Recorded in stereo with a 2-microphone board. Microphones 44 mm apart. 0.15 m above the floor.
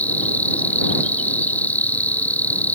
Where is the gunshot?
No gunshot in this recording.